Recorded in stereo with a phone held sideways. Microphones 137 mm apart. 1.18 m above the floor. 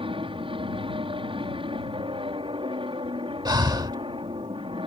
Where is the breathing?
30° right (ahead or behind).